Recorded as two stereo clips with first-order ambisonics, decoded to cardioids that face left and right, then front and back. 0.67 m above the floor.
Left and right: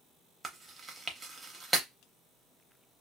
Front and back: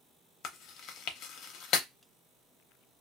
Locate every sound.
0.4 s chewing: 15° right, 0.6 m